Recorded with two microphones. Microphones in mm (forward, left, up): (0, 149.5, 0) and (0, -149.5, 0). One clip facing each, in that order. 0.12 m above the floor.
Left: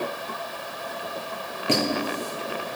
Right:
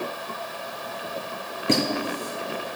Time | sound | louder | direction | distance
1.7 | a squeak | right 1 dB | 20° right (ahead or behind) | 1.7 m